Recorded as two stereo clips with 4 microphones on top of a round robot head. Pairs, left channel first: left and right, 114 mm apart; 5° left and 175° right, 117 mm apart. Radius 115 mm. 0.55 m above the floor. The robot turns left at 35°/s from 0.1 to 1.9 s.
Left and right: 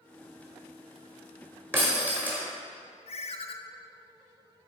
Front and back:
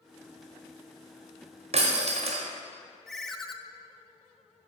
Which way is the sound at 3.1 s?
95° left.